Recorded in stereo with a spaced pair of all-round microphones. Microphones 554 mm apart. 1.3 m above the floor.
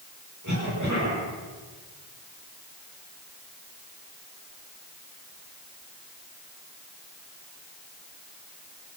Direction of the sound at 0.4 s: 30° right (ahead or behind).